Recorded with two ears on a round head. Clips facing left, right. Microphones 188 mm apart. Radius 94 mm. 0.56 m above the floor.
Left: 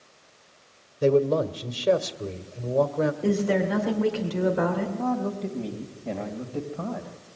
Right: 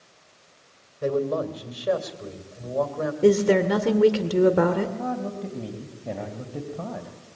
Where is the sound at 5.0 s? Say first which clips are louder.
Left 2 dB; centre (ahead or behind), 3 m.